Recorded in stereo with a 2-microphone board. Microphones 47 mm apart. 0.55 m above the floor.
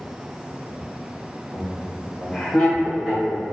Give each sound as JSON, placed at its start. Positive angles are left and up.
{"t": 1.5, "sound": "laughter", "side_deg": 30, "distance_m": 1.9}